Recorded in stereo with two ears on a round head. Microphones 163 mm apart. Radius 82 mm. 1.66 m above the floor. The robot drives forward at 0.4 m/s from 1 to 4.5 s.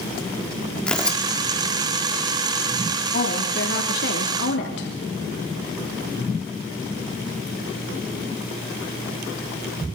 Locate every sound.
0.9 s tearing paper: 5° left (ahead or behind), 1.3 m
3.1 s a woman speaking: 50° left (ahead or behind), 3 m; by 4.9 s 60° left (ahead or behind), 3 m